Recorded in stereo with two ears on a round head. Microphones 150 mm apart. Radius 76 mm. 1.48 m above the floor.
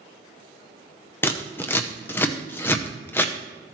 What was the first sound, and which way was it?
Scissors, 15° left (ahead or behind).